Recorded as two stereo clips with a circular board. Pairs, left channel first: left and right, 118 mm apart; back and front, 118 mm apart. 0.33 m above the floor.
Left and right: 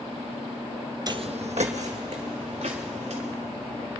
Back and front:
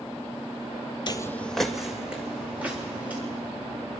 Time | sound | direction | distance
1.1 | footsteps | 140° right | 0.5 m